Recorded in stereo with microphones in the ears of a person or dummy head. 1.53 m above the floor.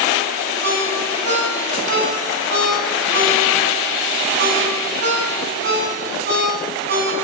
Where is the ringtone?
50° right (ahead or behind), 9.5 m.